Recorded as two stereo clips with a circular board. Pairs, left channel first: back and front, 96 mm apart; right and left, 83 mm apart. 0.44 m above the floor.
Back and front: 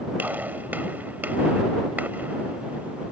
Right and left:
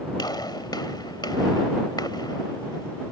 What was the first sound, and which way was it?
A gunshot, 70° right.